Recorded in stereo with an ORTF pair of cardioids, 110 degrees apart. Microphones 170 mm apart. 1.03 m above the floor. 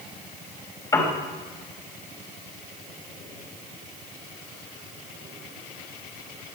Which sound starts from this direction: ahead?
A piano, at 0.9 s.